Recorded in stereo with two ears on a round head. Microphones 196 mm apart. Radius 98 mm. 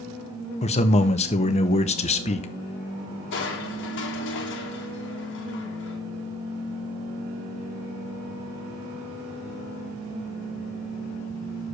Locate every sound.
0.6 s a man speaking: 30° left (ahead or behind), 0.8 m
3.3 s crushing: 55° left (ahead or behind), 1.5 m